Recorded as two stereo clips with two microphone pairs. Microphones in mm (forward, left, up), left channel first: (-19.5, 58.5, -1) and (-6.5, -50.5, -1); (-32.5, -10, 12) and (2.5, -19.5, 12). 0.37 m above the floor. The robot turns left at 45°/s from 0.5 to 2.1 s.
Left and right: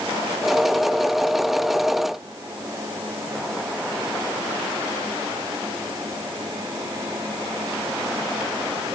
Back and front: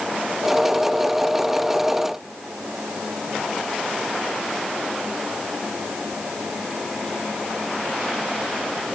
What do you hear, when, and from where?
Only background noise.